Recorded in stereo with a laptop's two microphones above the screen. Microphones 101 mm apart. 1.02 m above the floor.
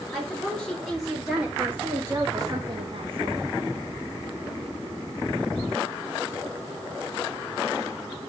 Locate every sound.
0.1 s a woman speaking: 10° left (ahead or behind), 4 m; by 3.5 s 70° right (ahead or behind), 1.9 m